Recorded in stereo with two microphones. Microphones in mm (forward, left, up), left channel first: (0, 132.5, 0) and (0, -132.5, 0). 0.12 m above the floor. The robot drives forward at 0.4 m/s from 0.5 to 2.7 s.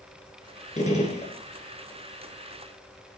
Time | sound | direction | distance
0.8 | a gunshot | 25° left (ahead or behind) | 1.6 m